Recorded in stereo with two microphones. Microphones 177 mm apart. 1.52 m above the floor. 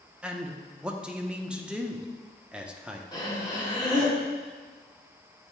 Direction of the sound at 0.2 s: 5° right (ahead or behind).